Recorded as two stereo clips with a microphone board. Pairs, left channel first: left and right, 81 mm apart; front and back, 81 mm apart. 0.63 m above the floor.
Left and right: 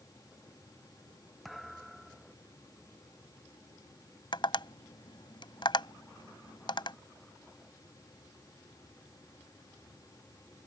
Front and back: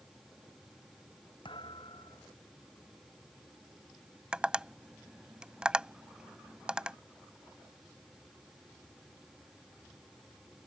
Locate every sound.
1.4 s a thud: straight ahead
4.3 s tapping: 100° left